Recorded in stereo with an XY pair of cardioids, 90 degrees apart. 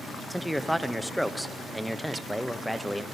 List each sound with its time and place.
0.3 s a man speaking: straight ahead, 0.6 m